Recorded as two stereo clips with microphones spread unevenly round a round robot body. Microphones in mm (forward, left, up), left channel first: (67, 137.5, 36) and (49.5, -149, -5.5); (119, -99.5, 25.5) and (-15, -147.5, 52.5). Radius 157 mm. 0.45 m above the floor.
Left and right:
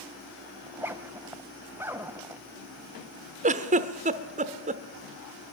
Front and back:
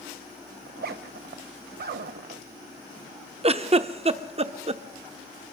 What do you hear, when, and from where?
0.7 s a zipper: straight behind, 0.6 m
3.4 s a giggle: 130° right, 1.0 m